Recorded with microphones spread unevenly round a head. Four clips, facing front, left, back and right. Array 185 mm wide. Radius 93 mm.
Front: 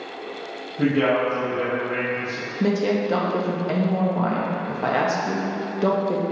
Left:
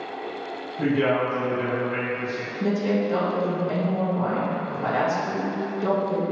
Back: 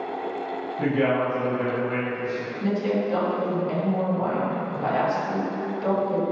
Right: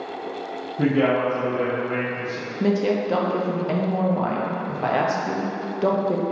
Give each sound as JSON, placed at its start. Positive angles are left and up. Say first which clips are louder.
{"t": 0.8, "sound": "a man speaking", "louder": "right 2 dB, front 3 dB", "azimuth_deg": -60, "distance_m": 1.2}
{"t": 2.6, "sound": "a woman speaking", "louder": "right 2 dB, front 4 dB", "azimuth_deg": -50, "distance_m": 0.8}